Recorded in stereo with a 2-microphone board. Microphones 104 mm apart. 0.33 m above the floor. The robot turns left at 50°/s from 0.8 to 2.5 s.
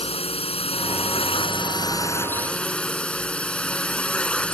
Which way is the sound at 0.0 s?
95° left.